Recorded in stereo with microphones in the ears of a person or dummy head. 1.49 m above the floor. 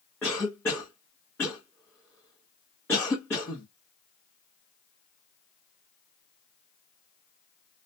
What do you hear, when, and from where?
0.2 s a cough: 10° left (ahead or behind), 0.8 m